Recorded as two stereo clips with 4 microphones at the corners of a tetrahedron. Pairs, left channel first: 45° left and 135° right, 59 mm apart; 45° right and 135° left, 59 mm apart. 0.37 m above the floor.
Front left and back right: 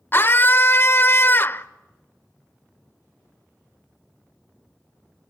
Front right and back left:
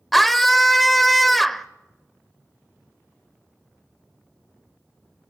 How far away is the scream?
About 0.9 m.